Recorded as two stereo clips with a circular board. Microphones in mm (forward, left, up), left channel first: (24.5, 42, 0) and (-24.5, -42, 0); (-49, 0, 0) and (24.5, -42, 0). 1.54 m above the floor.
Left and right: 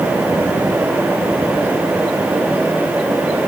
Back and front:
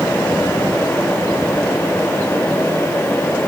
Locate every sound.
Only background noise.